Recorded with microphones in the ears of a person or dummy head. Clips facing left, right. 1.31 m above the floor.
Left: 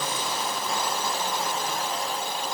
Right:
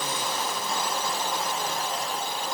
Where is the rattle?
No rattle in this recording.